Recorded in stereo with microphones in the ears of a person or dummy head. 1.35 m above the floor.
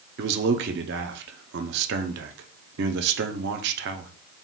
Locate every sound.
0.2 s a man speaking: 55° right (ahead or behind), 0.6 m